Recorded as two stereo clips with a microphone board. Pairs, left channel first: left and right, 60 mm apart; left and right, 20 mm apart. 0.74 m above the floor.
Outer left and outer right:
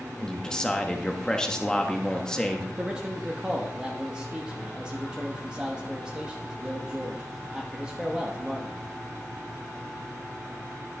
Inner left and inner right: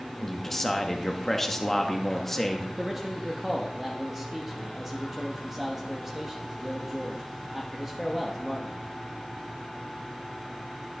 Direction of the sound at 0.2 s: 15° left (ahead or behind).